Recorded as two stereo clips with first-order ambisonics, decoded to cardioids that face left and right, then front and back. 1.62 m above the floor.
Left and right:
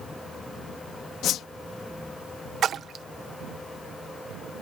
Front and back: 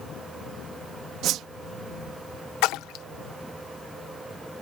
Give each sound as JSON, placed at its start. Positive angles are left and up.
{"t": 1.2, "sound": "a whoosh", "azimuth_deg": 135}
{"t": 2.6, "sound": "a splash", "azimuth_deg": -30}